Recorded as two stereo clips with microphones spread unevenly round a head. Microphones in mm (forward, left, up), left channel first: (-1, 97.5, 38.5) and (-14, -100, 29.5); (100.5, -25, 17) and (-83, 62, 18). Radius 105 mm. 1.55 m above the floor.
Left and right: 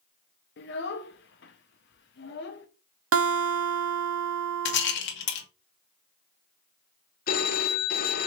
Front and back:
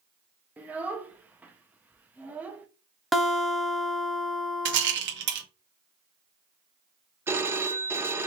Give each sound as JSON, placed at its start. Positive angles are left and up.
{"t": 0.6, "sound": "a child speaking", "azimuth_deg": 75, "distance_m": 0.6}
{"t": 3.1, "sound": "a guitar", "azimuth_deg": -115, "distance_m": 0.9}
{"t": 4.7, "sound": "a rattle", "azimuth_deg": 120, "distance_m": 1.3}
{"t": 7.3, "sound": "a phone ringing", "azimuth_deg": 80, "distance_m": 0.6}